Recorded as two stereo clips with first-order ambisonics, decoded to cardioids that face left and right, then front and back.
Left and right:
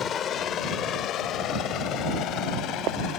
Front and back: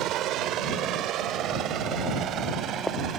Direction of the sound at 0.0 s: 145° left.